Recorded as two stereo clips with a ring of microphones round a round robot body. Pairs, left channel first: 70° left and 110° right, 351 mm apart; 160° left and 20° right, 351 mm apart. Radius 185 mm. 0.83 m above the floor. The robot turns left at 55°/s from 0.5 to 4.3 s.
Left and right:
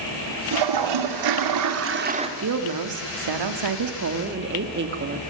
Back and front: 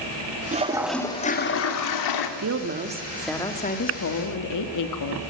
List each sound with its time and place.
0.5 s a toilet flushing: 90° right, 2.5 m; by 2.3 s 170° left, 2.5 m
2.4 s a woman speaking: 65° right, 2.5 m; by 5.2 s 170° right, 2.5 m